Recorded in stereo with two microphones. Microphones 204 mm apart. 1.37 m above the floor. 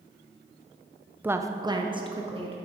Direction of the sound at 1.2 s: 10° right (ahead or behind).